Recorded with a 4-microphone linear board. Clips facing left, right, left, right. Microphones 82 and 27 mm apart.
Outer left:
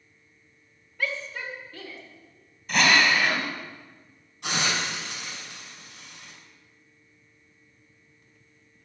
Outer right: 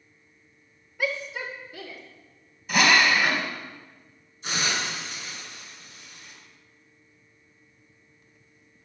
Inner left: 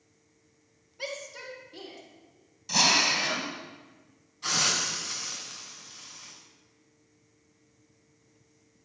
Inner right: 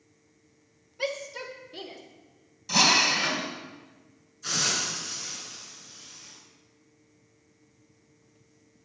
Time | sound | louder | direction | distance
1.0 | a shout | outer right 2 dB, inner right 5 dB | 15° right (ahead or behind) | 1.7 m
2.7 | a drill | outer right 1 dB, inner right 2 dB | 5° right (ahead or behind) | 3.5 m
4.4 | a hiss | outer left 1 dB, inner left 1 dB | 85° left | 6.5 m